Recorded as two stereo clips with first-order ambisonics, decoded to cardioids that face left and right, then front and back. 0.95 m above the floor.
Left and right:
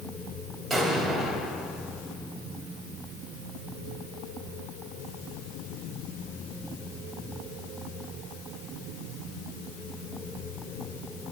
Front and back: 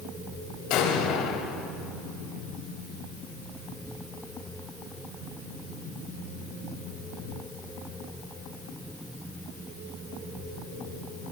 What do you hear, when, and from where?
0.7 s an explosion: 5° right, 0.9 m